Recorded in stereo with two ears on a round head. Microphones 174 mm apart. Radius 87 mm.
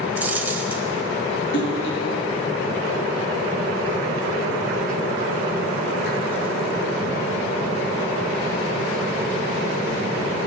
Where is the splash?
65° left (ahead or behind), 3.5 m.